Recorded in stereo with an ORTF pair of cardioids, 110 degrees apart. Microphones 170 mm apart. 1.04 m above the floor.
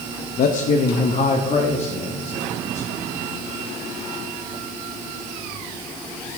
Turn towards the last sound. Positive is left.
turn(degrees=35)